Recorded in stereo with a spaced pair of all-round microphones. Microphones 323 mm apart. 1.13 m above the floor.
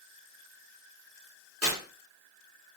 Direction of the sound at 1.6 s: 45° right (ahead or behind).